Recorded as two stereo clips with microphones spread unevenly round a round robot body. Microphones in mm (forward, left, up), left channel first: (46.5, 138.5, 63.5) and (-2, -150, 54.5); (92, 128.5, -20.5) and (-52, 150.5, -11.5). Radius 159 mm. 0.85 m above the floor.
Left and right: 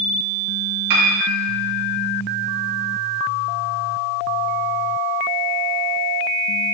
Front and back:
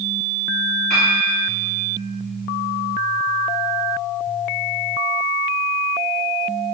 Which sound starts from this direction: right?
A piano, at 0.9 s.